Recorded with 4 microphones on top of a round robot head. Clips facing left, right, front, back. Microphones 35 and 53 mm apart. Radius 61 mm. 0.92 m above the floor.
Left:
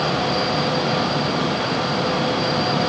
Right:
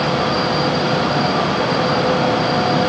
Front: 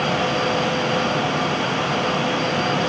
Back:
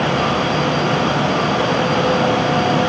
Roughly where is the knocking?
I don't hear knocking.